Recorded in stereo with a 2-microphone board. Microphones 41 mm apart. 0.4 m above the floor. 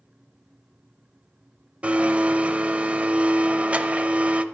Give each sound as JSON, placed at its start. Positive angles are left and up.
{"t": 1.8, "sound": "a blender", "side_deg": -30, "distance_m": 0.6}